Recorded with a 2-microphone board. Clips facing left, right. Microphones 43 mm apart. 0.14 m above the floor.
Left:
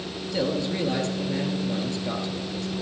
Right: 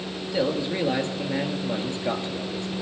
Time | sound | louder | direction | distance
0.3 | a man speaking | right 1 dB | 15° right (ahead or behind) | 2.5 m